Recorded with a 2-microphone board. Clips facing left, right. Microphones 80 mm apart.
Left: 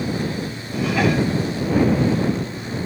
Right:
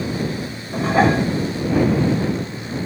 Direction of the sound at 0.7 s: 35° right (ahead or behind).